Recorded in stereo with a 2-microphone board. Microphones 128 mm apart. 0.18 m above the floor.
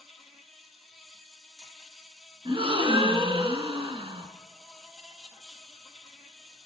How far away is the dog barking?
No dog barking in this recording.